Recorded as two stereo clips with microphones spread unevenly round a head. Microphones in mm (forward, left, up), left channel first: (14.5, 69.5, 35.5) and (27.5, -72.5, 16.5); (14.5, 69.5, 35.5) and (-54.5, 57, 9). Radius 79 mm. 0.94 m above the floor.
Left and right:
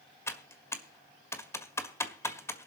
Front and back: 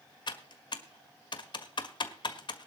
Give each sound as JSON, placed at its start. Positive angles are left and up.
{"t": 0.3, "sound": "typing on a keyboard", "azimuth_deg": 20, "distance_m": 1.7}